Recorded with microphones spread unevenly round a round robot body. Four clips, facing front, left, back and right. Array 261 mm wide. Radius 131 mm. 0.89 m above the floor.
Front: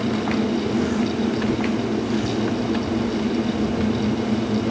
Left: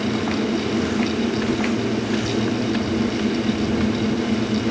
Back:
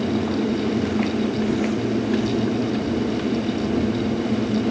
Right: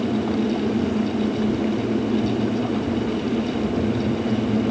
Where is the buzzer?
I don't hear a buzzer.